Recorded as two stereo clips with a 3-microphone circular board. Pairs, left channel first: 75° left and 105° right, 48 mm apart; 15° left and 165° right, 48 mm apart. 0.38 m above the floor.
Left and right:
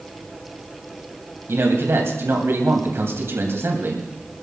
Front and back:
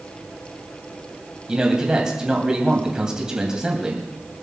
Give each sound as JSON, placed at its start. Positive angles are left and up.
{"t": 1.5, "sound": "a man speaking", "azimuth_deg": -90, "distance_m": 2.5}